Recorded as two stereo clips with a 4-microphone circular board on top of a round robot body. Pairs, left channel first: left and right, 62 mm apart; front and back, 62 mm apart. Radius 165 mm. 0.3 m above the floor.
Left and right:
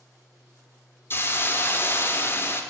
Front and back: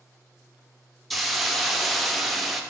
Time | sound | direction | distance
1.1 | a hiss | 90° left | 0.9 m